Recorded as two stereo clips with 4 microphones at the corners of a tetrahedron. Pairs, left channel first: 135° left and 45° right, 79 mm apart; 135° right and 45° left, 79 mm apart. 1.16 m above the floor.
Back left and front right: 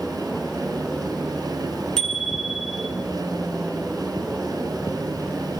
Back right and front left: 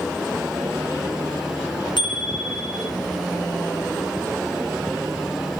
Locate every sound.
2.0 s a bicycle bell: 150° right, 9 m